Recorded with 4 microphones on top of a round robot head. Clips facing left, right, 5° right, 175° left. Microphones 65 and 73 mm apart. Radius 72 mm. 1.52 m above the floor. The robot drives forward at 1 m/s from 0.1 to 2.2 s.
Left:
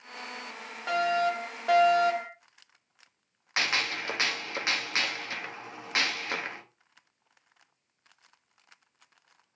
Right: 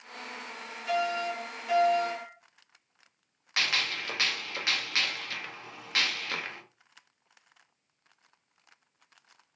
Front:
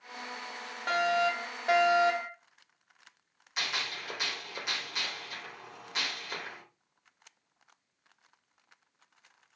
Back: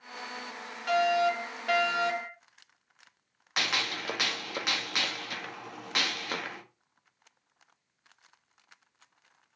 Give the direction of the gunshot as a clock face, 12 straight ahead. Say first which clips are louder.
Left 1 dB, back 4 dB; 7 o'clock.